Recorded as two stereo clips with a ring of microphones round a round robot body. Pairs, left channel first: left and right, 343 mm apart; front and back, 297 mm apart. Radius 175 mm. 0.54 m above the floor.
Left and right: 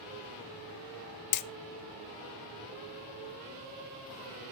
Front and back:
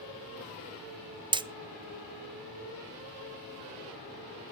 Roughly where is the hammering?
Left.